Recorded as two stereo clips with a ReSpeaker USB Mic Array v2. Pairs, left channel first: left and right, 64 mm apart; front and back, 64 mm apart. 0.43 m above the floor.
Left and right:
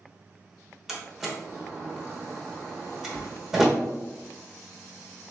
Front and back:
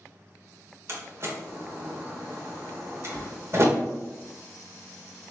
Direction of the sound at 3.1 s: 65° left.